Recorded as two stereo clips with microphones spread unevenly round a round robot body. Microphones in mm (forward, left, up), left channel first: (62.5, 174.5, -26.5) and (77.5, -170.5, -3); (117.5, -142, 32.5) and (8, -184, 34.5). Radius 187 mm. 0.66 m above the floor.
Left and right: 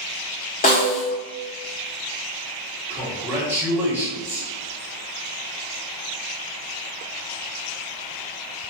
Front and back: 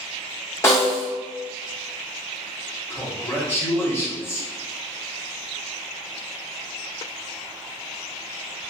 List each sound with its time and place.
0.6 s a snare drum: 65° left, 0.8 m
2.9 s a man speaking: 5° right, 0.9 m